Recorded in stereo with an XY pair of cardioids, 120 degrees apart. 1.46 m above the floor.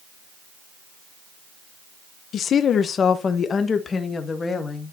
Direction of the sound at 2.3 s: 55° left.